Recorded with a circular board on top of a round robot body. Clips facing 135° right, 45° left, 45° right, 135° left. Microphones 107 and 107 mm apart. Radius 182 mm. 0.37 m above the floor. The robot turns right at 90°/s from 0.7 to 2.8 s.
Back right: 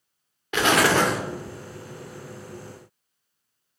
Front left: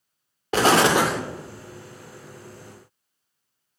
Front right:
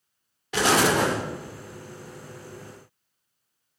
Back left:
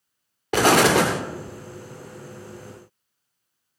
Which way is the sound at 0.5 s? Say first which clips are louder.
Front left 2 dB, back left 4 dB; 100° left.